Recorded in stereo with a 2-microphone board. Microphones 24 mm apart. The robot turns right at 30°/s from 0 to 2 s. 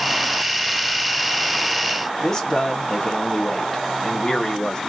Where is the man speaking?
30° left (ahead or behind), 1.3 m.